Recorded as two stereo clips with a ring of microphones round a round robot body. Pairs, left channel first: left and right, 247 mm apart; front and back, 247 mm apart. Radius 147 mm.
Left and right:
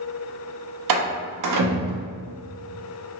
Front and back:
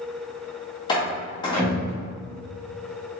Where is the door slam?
75° right, 0.7 m.